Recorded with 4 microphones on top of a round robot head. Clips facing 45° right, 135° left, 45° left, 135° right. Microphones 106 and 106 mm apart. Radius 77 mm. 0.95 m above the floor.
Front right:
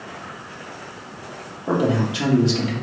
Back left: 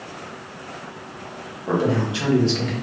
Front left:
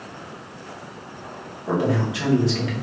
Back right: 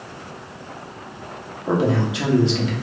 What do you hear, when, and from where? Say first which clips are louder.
1.7 s a man speaking: front right 1 dB, back right 2 dB; 95° right, 1.0 m